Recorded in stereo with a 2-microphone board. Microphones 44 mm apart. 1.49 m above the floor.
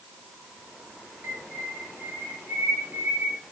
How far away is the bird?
About 9 m.